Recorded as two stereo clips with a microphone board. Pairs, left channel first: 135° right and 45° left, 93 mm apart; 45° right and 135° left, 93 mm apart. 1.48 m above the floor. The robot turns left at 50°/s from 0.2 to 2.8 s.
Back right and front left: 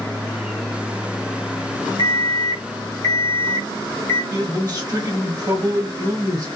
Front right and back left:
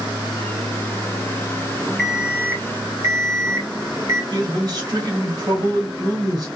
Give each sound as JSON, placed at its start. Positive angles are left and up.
{"t": 2.0, "sound": "an alarm clock", "azimuth_deg": -135, "distance_m": 1.0}
{"t": 4.3, "sound": "a man speaking", "azimuth_deg": 90, "distance_m": 1.7}